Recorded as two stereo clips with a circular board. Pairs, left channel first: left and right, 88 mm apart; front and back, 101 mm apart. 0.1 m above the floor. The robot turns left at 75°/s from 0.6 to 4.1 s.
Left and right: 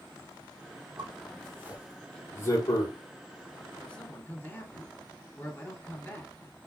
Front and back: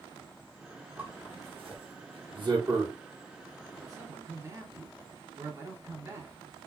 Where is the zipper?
105° right, 1.5 m; by 2.9 s 105° left, 1.5 m.